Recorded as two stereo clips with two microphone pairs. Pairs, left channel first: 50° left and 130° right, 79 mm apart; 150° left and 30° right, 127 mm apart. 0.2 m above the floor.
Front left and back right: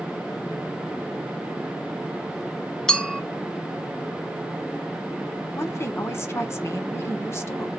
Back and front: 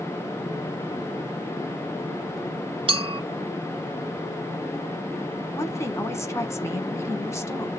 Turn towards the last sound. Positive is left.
turn(degrees=90)